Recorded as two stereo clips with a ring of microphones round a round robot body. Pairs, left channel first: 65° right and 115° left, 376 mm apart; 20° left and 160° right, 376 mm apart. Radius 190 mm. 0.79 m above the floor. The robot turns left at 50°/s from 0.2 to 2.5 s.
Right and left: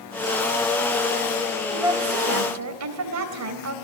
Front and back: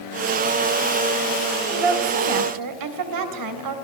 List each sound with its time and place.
1.7 s a woman speaking: 160° right, 3.5 m; by 3.8 s 160° left, 3.5 m